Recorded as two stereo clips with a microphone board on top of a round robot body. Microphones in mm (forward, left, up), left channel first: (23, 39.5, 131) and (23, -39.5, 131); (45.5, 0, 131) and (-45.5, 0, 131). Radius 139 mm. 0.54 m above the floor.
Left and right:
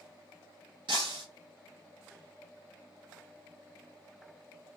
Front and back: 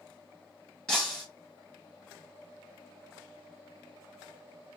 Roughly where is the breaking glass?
Right.